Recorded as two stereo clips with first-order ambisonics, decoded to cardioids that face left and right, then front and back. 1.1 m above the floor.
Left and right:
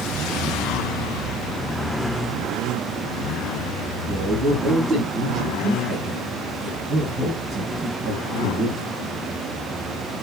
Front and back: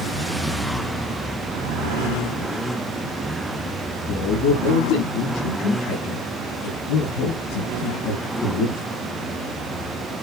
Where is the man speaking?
25° right, 8.5 m; by 8.8 s 15° right, 10.5 m.